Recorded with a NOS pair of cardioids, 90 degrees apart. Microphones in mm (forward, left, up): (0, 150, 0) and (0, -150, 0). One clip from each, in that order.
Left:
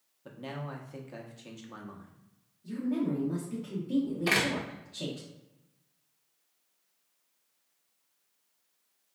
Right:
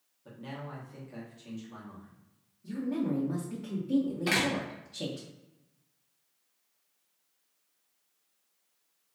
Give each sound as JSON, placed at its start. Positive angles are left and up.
{"t": 0.2, "sound": "a man speaking", "azimuth_deg": 35, "distance_m": 0.8}
{"t": 2.6, "sound": "a woman speaking", "azimuth_deg": -15, "distance_m": 0.8}
{"t": 4.3, "sound": "a door slam", "azimuth_deg": 5, "distance_m": 0.6}